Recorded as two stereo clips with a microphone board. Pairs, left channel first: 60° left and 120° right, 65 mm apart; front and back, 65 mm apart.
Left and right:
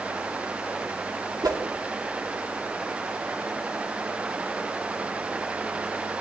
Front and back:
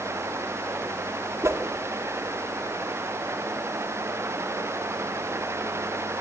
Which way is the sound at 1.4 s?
135° right.